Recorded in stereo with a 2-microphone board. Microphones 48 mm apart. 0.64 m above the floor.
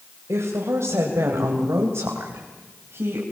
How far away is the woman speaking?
About 3 m.